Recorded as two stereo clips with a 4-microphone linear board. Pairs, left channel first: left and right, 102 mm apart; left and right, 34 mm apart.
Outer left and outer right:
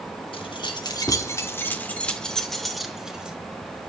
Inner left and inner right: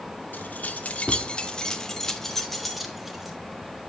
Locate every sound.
0.3 s keys jangling: 55° left (ahead or behind), 2.5 m; by 3.4 s 10° right (ahead or behind), 4 m